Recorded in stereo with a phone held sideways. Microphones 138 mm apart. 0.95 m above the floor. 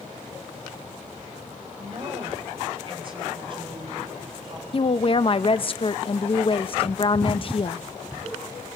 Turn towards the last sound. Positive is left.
turn(degrees=40)  # may be behind; listen again after turning